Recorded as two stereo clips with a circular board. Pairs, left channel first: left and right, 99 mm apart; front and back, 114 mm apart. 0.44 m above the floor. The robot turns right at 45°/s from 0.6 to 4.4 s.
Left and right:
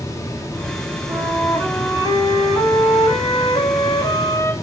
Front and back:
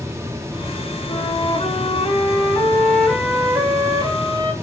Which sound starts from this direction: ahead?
A flute, at 1.1 s.